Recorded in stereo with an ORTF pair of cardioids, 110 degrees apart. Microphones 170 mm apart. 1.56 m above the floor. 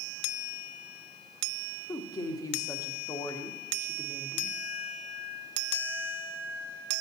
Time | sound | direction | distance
1.9 | a woman speaking | 20° left | 0.8 m